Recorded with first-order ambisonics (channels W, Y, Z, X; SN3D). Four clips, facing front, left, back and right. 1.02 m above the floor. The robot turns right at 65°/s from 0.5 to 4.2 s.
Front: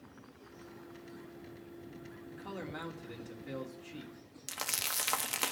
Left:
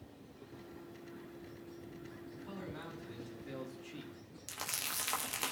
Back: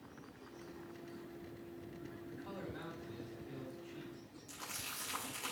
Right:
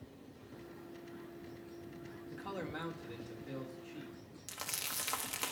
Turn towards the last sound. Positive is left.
turn(degrees=5)